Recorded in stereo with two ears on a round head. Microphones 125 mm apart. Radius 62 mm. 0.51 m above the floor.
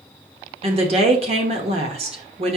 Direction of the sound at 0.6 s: 45° right (ahead or behind).